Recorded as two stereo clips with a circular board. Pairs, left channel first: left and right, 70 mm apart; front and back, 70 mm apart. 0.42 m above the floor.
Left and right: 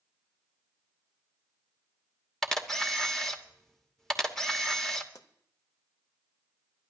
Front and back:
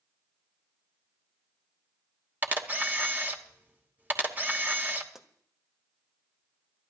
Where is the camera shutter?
165° left, 1.1 m.